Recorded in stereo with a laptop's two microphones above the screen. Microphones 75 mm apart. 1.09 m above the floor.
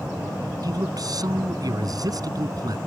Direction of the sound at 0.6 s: 60° right (ahead or behind).